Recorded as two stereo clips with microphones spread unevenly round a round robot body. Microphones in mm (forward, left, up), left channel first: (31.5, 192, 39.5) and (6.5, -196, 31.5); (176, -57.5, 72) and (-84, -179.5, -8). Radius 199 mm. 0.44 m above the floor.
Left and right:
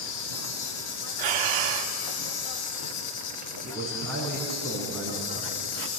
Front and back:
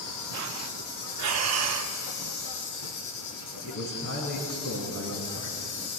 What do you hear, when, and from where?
0.0 s an insect: 60° left, 0.9 m
1.2 s breathing: 115° right, 1.0 m
3.6 s a man speaking: straight ahead, 5 m